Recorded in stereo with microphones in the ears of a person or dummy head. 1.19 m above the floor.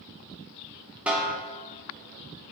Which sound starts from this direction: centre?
A snare drum, at 1.1 s.